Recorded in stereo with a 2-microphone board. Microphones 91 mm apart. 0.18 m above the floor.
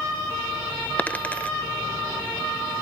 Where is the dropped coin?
15° left (ahead or behind), 0.8 m.